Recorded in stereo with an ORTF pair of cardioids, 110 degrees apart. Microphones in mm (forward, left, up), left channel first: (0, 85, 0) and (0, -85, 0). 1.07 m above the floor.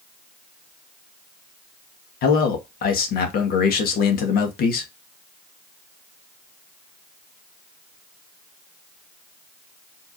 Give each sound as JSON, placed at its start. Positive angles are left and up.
{"t": 2.2, "sound": "a man speaking", "azimuth_deg": 65, "distance_m": 1.7}